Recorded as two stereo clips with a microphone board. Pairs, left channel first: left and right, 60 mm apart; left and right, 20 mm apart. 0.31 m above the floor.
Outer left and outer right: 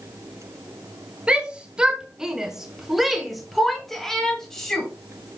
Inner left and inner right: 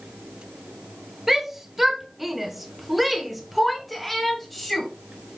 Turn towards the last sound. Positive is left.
turn(degrees=10)  # may be behind; listen again after turning